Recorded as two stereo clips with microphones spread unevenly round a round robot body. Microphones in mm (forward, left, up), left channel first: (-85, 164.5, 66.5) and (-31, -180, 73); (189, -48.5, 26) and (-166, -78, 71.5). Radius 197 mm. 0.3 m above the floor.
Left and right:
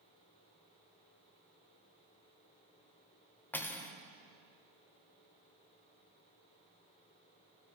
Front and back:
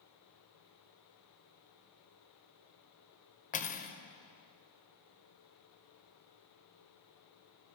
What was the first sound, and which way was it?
Cutlery clinking, 20° left.